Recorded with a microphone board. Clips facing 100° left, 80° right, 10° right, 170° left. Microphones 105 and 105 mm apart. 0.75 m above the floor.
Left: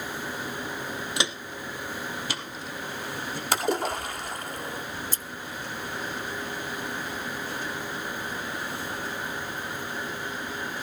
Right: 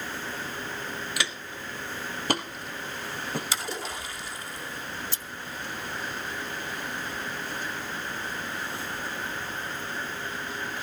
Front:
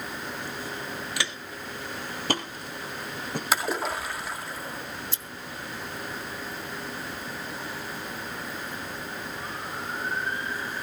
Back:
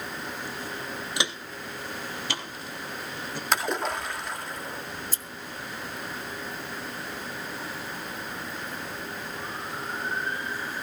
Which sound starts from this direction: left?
A splash, at 3.5 s.